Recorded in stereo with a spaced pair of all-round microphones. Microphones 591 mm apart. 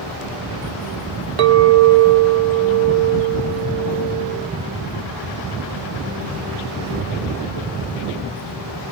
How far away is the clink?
About 0.6 m.